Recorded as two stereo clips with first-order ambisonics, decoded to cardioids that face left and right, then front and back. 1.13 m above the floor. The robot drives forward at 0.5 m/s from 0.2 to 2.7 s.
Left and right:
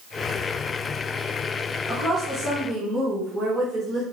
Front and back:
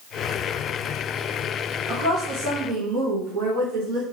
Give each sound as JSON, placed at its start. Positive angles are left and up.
{"t": 1.9, "sound": "a woman speaking", "azimuth_deg": -155, "distance_m": 0.8}